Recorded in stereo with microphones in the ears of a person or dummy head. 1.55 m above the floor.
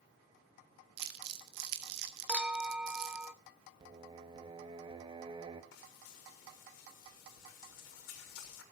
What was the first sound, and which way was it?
Crumpling, 55° right (ahead or behind).